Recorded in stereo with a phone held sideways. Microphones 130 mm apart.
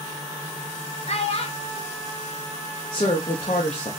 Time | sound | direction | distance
1.1 | a child speaking | 50° left (ahead or behind) | 0.9 m
2.9 | a woman speaking | 45° left (ahead or behind) | 0.7 m